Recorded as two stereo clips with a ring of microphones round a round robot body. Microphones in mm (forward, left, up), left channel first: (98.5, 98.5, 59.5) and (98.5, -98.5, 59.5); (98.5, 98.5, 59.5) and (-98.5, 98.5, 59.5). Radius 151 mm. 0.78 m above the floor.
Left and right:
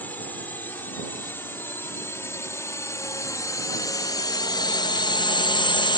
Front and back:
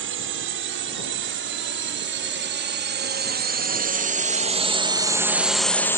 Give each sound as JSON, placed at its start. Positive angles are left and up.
{"t": 0.0, "sound": "a drone", "azimuth_deg": 175}